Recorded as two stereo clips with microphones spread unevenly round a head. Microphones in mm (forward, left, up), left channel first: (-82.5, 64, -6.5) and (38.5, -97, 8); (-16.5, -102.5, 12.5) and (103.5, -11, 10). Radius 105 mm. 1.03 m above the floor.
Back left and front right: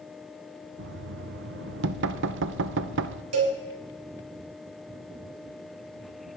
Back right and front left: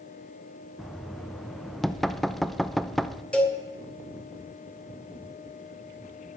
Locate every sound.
0.8 s knocking: 55° right, 0.6 m
3.3 s a cowbell: 60° right, 3.5 m